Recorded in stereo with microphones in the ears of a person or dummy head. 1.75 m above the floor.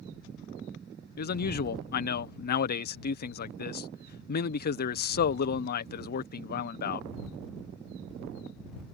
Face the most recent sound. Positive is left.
turn(degrees=55)  # may be behind; listen again after turning